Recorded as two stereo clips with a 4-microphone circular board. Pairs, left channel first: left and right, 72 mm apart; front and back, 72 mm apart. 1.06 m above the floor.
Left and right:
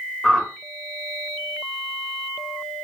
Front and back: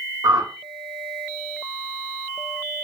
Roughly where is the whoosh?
Behind.